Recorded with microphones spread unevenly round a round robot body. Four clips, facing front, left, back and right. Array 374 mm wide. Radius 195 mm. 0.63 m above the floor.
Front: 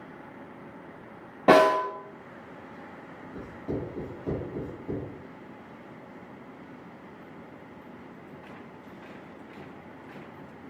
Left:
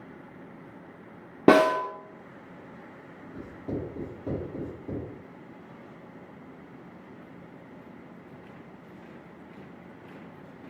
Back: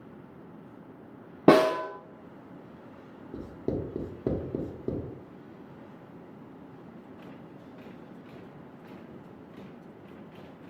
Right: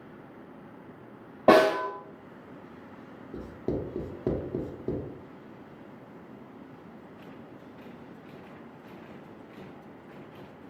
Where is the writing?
135° right, 0.8 m.